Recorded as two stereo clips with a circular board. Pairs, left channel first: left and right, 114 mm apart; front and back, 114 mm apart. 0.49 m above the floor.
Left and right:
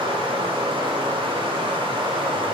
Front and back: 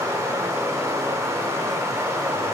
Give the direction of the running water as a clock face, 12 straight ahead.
4 o'clock.